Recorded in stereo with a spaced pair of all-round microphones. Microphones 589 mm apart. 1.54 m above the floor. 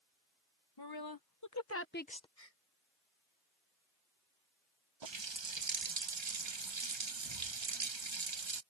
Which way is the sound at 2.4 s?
70° left (ahead or behind).